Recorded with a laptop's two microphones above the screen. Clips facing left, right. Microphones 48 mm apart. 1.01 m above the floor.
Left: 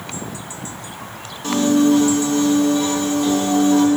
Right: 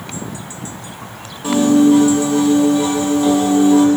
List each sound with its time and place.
1.4 s a piano: 10° right (ahead or behind), 1.2 m